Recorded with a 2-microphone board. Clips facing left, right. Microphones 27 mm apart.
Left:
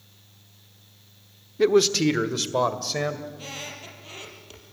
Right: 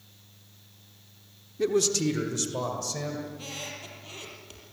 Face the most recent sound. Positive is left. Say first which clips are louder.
# left 1 dB
turn(degrees=5)  # may be behind; listen again after turning